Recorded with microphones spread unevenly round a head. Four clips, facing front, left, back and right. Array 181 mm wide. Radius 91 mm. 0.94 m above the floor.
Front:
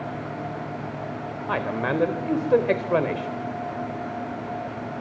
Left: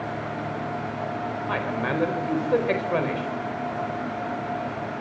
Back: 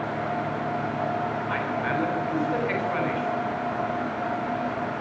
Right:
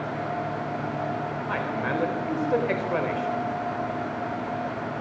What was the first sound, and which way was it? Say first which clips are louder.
A man speaking: left 1 dB, front 1 dB; 10° left.